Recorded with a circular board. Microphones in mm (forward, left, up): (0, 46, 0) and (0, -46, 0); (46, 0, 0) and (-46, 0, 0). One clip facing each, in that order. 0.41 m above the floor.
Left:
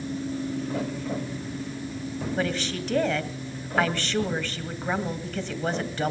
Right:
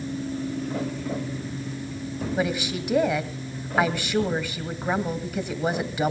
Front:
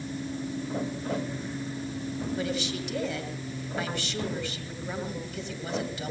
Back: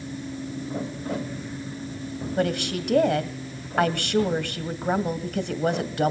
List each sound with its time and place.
2.4 s a woman speaking: 170° right, 2.5 m